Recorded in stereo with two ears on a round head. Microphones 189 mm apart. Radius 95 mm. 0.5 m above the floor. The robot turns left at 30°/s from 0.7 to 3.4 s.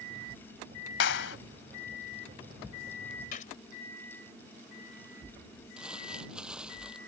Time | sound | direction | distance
1.0 | a clap | 60° left (ahead or behind) | ?
3.3 | a gunshot | 40° left (ahead or behind) | ?
5.8 | crumpling | 5° right (ahead or behind) | ?